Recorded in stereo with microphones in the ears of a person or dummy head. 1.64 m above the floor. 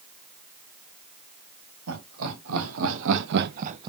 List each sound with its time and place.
1.9 s laughter: 80° right, 2 m; by 3.9 s 20° right (ahead or behind), 0.5 m